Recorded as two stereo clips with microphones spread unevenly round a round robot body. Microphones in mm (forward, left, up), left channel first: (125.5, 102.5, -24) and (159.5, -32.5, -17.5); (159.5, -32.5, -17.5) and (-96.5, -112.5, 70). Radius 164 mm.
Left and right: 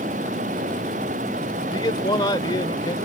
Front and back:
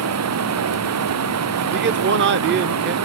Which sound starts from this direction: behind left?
A man speaking, at 1.7 s.